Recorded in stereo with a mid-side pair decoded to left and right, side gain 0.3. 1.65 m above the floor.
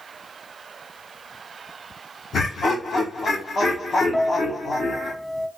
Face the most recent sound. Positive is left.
turn(degrees=20)